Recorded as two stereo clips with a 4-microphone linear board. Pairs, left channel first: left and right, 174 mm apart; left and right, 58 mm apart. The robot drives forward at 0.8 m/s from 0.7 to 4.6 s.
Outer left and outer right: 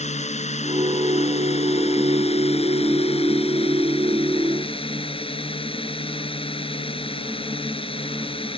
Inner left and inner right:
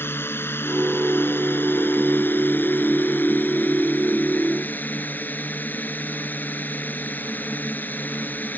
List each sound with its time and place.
0.0 s a drone: 40° left (ahead or behind); by 8.6 s 30° left (ahead or behind)